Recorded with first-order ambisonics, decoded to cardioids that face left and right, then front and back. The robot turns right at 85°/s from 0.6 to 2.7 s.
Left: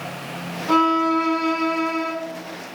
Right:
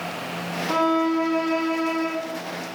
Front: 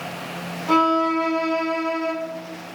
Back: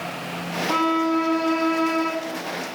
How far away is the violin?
About 0.8 m.